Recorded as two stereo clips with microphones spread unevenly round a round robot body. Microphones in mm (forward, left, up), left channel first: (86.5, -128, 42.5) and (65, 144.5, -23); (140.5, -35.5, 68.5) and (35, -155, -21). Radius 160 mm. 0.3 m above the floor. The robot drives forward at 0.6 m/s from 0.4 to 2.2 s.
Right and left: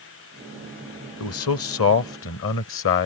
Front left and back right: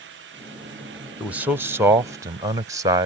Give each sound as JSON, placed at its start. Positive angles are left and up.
{"t": 1.2, "sound": "a man speaking", "azimuth_deg": -105}